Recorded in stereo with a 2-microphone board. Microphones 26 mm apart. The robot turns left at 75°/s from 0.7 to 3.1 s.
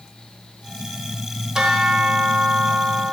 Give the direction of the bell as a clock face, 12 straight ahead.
1 o'clock.